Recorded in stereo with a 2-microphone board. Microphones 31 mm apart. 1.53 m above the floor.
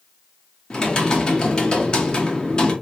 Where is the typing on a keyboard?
30° left (ahead or behind), 1.1 m.